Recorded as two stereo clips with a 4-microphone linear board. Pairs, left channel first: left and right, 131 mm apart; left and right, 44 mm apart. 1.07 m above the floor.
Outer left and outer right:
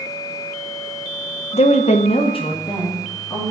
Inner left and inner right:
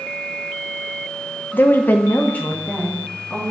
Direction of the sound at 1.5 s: 50° left (ahead or behind).